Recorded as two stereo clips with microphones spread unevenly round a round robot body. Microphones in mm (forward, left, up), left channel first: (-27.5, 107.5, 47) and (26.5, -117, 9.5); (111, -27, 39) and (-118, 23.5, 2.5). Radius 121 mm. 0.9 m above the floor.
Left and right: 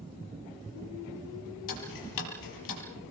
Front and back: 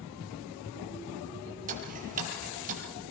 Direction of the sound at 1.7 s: 105° left.